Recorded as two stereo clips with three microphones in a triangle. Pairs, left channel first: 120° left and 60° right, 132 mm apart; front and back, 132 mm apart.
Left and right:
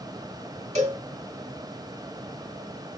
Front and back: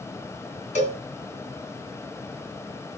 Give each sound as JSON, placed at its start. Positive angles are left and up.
{"t": 0.8, "sound": "a cowbell", "azimuth_deg": -30, "distance_m": 3.0}